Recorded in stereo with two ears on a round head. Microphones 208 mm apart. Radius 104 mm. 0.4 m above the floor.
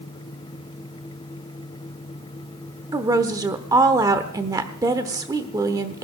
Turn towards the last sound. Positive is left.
turn(degrees=-15)  # may be behind; listen again after turning